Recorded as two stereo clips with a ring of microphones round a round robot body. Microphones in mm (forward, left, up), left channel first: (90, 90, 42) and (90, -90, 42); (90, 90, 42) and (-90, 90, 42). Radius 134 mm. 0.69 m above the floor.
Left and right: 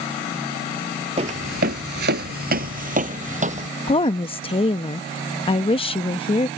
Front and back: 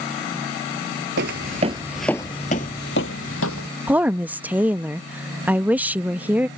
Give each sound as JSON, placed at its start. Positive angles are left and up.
{"t": 1.2, "sound": "footsteps", "azimuth_deg": -155}
{"t": 3.9, "sound": "a woman speaking", "azimuth_deg": 105}